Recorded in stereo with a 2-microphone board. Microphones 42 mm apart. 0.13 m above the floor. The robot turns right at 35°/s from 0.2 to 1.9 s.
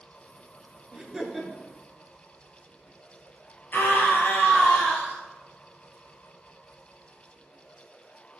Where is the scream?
50° left (ahead or behind), 2.5 m.